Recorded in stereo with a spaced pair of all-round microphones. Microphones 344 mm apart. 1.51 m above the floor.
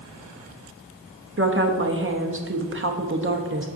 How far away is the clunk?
I don't hear a clunk.